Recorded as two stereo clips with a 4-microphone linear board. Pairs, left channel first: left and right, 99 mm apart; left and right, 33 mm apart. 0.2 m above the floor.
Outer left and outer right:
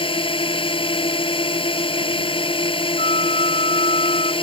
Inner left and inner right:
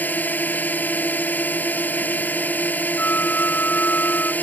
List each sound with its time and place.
0.0 s a drone: 65° left (ahead or behind)
3.0 s a flute: 85° left